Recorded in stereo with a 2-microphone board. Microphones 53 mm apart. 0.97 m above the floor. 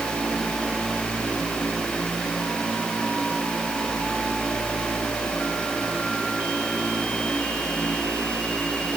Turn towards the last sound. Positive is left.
No sound to turn to.